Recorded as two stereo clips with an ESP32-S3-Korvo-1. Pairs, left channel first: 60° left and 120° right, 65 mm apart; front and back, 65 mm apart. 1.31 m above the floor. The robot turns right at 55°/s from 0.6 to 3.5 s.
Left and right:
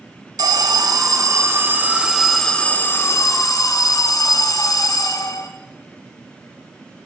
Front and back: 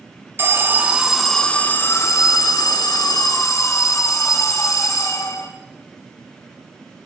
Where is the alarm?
125° right, 1.0 m; by 5.5 s 35° left, 1.0 m.